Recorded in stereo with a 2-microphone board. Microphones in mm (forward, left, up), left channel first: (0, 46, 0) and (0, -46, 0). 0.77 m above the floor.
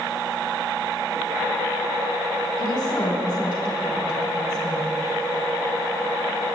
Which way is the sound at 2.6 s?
45° left (ahead or behind).